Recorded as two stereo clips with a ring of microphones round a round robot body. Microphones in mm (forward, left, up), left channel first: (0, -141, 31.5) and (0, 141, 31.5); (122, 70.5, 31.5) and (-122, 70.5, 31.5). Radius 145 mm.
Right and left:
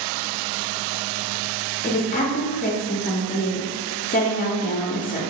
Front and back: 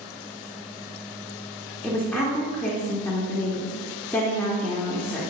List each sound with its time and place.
1.8 s a woman speaking: 80° right, 0.7 m